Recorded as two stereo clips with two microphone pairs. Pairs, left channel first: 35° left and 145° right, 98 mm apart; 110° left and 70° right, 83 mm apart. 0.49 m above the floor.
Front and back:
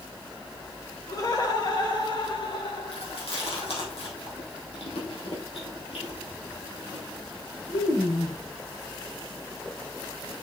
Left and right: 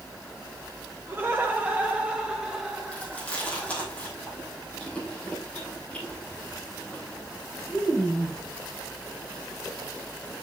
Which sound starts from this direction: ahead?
Laughter, at 1.1 s.